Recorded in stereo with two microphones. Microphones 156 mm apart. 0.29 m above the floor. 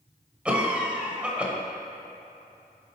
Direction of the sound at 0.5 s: 5° right (ahead or behind).